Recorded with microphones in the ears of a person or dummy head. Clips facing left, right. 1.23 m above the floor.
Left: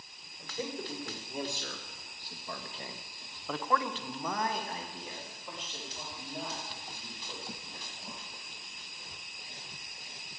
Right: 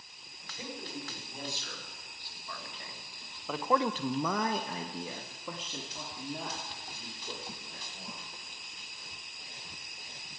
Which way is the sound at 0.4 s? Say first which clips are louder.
Left 6 dB; 50° left (ahead or behind).